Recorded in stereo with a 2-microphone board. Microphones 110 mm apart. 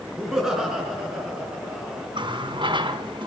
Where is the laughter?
5° right (ahead or behind), 6.5 m.